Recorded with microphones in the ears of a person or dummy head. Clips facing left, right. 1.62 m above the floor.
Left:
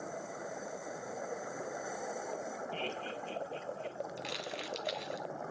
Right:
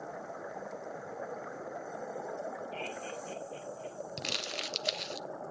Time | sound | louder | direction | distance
2.7 | laughter | even | 5° left (ahead or behind) | 1.5 m
4.2 | crumpling | even | 50° right (ahead or behind) | 0.8 m